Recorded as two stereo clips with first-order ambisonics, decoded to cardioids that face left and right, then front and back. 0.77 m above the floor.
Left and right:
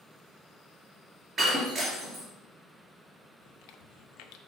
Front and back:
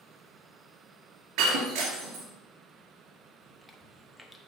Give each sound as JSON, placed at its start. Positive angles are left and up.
{"t": 1.4, "sound": "breaking glass", "azimuth_deg": -155, "distance_m": 2.5}
{"t": 3.4, "sound": "chewing", "azimuth_deg": 85, "distance_m": 0.7}